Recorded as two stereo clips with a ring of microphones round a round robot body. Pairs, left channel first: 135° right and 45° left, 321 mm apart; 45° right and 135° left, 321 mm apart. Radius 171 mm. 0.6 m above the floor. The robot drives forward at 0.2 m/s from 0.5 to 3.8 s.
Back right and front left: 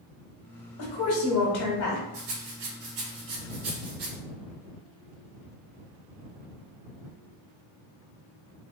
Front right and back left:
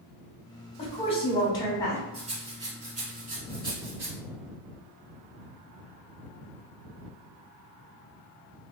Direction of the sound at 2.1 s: 60° left.